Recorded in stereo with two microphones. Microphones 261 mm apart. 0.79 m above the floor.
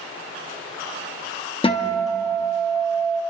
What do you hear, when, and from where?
1.6 s a guitar: 20° left (ahead or behind), 1.1 m